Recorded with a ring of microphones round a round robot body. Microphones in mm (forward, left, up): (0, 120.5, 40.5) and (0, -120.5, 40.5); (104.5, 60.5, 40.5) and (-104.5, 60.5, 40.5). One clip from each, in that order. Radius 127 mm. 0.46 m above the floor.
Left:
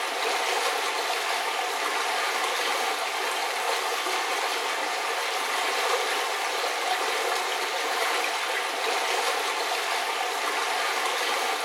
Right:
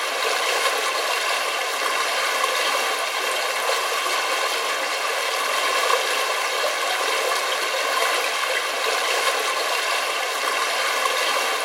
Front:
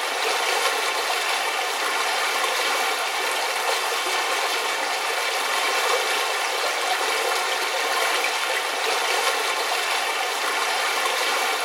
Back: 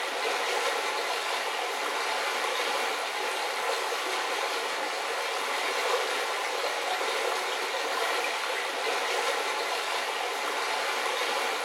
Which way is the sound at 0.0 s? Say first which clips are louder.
Right 4 dB, front 6 dB; 20° right.